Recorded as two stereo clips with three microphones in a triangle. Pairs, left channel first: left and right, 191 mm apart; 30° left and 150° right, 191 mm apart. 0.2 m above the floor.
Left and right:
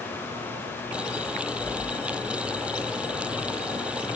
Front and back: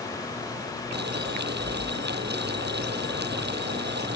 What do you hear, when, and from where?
0.9 s boiling: 175° right